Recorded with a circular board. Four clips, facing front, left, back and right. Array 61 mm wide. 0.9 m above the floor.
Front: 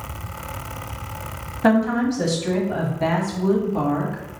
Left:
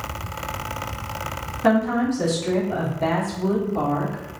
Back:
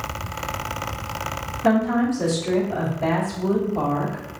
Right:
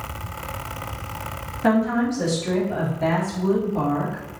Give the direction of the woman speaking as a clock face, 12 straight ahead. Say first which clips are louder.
Left 1 dB, front 1 dB; 12 o'clock.